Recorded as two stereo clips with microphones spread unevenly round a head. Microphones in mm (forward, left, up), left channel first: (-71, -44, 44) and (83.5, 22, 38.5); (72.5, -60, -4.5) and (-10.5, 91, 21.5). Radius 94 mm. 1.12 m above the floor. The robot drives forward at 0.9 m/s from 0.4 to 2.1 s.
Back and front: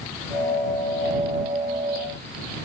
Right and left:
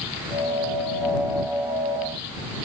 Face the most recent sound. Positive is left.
No sound to turn to.